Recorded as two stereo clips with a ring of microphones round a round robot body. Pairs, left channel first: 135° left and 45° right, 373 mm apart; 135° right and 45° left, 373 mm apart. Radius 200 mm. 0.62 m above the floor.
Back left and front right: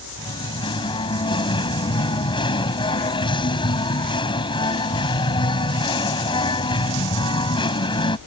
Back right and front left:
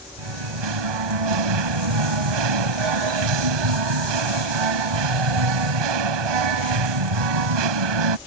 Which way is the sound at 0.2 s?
55° left.